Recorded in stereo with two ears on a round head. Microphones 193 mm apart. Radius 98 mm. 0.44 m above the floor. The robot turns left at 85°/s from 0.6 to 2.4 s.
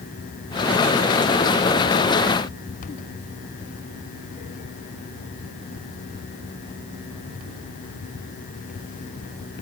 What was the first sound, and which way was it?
Only background noise.